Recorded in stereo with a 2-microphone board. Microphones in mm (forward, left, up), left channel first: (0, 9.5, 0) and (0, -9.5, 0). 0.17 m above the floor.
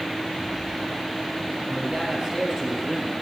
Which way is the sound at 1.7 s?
45° right (ahead or behind).